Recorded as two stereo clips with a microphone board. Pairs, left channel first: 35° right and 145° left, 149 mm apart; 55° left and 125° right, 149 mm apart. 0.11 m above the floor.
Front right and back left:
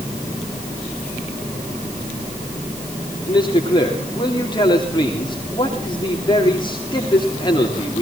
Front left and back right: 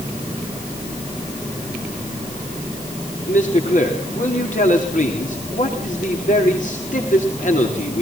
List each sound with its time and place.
3.3 s a man speaking: 25° left, 7.5 m